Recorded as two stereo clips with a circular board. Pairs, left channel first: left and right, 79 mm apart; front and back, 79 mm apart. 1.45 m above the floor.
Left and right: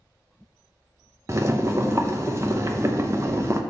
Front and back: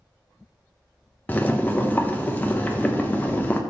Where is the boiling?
60° right, 0.7 m.